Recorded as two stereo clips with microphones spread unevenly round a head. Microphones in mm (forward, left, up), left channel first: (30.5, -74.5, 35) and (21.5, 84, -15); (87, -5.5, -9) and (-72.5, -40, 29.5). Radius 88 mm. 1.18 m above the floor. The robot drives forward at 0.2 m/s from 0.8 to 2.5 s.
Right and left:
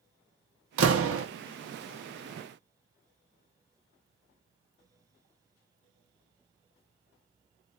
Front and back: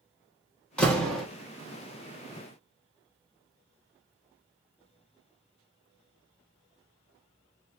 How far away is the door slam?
About 1.2 m.